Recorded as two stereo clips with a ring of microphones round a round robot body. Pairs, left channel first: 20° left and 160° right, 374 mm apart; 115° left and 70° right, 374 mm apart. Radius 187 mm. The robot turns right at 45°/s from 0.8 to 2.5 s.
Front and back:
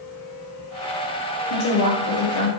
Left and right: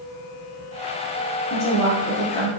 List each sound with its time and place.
1.5 s a woman speaking: 5° right, 1.5 m; by 2.5 s 40° left, 1.5 m